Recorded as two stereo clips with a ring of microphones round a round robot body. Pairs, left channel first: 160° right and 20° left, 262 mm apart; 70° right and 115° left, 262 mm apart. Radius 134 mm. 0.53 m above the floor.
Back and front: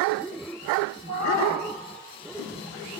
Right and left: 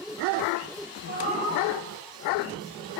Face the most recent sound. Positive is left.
turn(degrees=170)